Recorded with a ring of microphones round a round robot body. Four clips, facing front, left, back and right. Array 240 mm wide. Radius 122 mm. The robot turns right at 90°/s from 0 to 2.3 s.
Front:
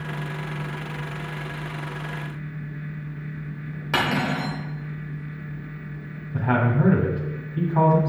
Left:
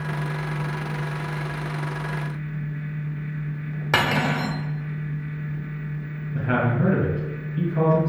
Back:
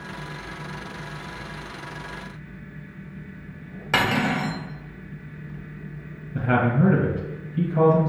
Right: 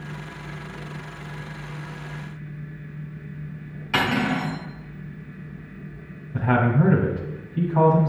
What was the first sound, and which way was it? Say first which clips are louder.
Cutlery clinking: even, back 1 dB; 95° left.